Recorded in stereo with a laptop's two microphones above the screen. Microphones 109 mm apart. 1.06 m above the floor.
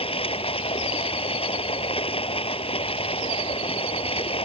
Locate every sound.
0.0 s running water: 60° left (ahead or behind)